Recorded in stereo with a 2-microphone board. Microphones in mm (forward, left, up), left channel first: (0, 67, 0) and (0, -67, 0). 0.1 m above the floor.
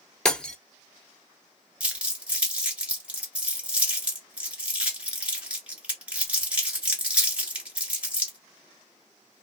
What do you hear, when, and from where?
0.2 s breaking glass: 5° left (ahead or behind), 0.5 m
1.8 s crumpling: 10° right (ahead or behind), 1.6 m